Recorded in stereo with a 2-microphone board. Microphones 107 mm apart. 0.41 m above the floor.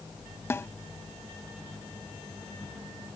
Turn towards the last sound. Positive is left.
turn(degrees=20)  # may be behind; listen again after turning